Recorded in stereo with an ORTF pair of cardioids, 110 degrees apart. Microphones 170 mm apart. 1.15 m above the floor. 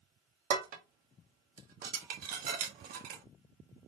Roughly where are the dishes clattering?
Ahead right.